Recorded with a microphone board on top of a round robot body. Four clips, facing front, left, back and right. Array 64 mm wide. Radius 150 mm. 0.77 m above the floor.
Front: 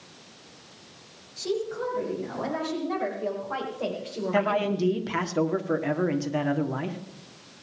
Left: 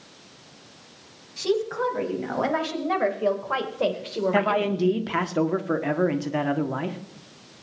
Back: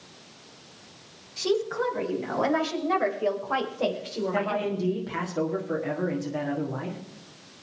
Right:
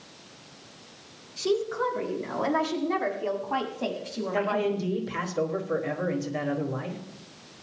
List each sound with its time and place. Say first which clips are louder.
1.4 s a woman speaking: left 2 dB, back 3 dB; 125° left, 5.5 m; by 4.9 s 80° left, 2.5 m
4.3 s a man speaking: left 2 dB, front 4 dB; 70° left, 2.0 m